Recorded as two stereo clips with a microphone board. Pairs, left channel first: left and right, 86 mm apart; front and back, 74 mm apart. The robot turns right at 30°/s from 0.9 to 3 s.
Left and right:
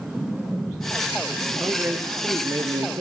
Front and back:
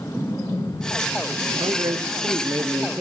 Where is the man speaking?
160° right, 0.9 m; by 3.0 s 120° right, 0.9 m.